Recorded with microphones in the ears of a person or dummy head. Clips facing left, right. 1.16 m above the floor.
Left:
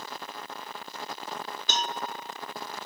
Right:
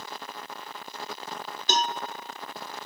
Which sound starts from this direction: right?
A cowbell, at 1.7 s.